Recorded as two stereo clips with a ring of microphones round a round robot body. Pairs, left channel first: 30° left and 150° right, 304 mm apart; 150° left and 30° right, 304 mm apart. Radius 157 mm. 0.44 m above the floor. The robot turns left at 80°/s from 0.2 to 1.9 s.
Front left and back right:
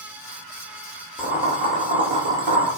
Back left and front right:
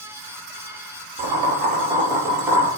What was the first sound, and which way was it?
Boiling, 55° right.